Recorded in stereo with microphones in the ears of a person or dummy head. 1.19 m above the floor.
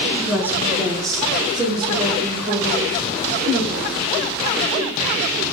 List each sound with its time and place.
0.1 s a woman speaking: 5° left (ahead or behind), 1.6 m; by 3.9 s 35° right (ahead or behind), 4 m